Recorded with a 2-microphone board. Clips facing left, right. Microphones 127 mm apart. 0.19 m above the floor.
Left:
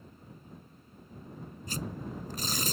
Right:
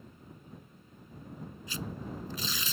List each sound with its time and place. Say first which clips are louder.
1.7 s tearing paper: left 2 dB; 45° left (ahead or behind)